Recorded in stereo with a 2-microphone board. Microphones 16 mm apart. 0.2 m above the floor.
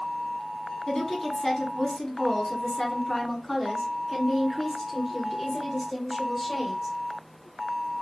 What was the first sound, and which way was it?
A woman speaking, 40° left (ahead or behind).